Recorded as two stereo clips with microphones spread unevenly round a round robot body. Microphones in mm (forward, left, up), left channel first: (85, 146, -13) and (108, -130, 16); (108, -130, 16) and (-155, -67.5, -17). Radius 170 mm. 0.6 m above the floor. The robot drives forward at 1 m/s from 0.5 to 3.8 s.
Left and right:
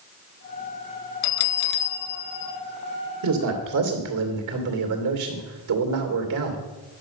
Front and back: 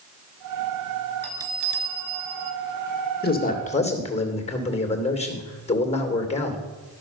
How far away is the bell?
About 0.7 m.